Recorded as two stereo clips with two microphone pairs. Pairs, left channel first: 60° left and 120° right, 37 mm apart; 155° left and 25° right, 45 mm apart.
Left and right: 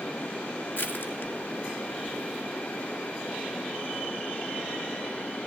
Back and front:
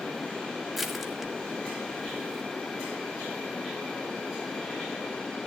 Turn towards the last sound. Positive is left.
turn(degrees=60)